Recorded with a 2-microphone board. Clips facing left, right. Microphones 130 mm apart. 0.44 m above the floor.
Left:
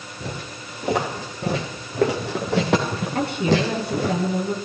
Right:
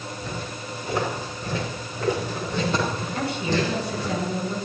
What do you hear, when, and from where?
0.2 s footsteps: 70° left (ahead or behind), 5 m; by 4.2 s 65° left (ahead or behind), 2.5 m
3.1 s a woman speaking: 55° left (ahead or behind), 4.5 m